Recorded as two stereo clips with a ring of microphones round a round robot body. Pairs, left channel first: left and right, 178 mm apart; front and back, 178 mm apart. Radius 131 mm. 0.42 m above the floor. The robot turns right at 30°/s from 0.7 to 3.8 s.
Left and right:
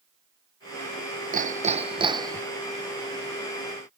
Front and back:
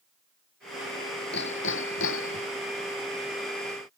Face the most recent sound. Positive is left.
turn(degrees=25)